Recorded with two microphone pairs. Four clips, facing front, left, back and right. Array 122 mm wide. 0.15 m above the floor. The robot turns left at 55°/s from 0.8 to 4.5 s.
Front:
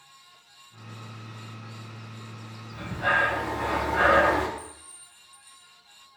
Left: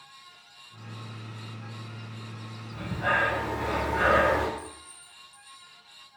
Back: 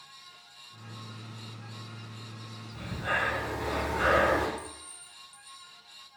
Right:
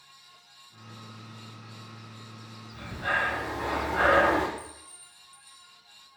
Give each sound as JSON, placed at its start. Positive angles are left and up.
{"t": 2.7, "sound": "breathing", "azimuth_deg": 45, "distance_m": 3.5}
{"t": 4.6, "sound": "a clink", "azimuth_deg": -150, "distance_m": 4.5}